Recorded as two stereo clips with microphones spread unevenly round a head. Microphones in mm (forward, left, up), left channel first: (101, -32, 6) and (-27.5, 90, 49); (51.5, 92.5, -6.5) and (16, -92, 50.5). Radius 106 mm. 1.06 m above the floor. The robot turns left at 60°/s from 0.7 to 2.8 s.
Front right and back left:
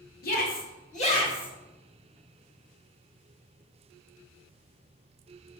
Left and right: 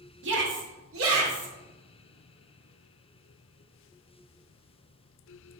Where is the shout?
70° right, 1.9 m; by 1.5 s 120° right, 1.9 m.